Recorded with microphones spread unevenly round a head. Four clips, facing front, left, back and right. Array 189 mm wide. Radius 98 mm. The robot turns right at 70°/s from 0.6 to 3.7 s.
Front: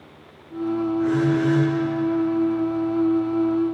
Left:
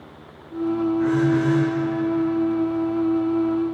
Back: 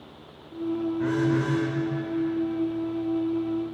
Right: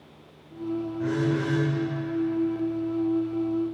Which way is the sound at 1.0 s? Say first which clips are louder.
Left 5 dB, front 4 dB; 175° left.